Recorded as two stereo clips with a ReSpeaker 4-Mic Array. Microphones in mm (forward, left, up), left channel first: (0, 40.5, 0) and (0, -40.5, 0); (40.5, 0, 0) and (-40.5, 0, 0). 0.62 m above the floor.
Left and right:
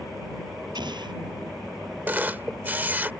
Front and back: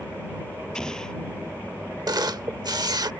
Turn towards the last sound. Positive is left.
turn(degrees=-155)